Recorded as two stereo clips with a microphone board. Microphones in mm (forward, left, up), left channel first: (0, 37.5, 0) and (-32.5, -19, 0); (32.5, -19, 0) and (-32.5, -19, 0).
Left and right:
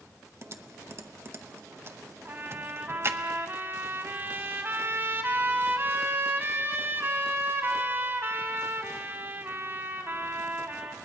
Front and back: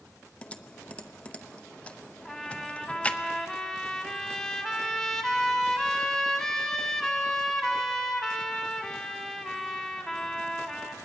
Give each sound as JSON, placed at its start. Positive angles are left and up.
{"t": 0.4, "sound": "typing on a keyboard", "azimuth_deg": -70, "distance_m": 0.8}
{"t": 2.2, "sound": "a trumpet", "azimuth_deg": -85, "distance_m": 1.9}